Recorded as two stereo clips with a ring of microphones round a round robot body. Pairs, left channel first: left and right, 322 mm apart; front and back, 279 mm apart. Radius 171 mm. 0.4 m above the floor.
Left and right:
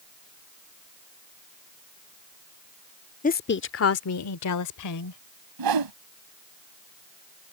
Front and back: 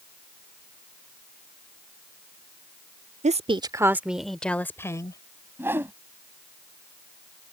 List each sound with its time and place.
3.2 s a woman speaking: 135° left; by 5.2 s 75° left
5.6 s a whoosh: 95° right